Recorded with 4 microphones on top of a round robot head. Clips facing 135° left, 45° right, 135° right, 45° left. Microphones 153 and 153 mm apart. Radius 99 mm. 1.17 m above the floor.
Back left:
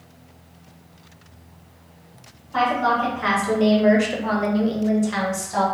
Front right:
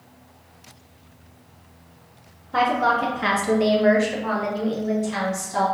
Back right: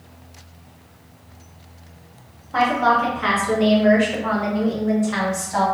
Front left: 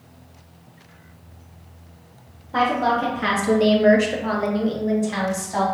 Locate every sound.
2.5 s a woman speaking: 20° right, 0.8 m; by 5.7 s 115° left, 1.3 m